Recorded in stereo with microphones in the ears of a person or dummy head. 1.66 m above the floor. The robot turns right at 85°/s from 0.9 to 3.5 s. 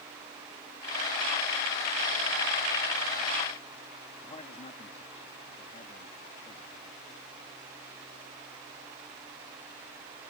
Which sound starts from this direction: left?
A man speaking, at 4.2 s.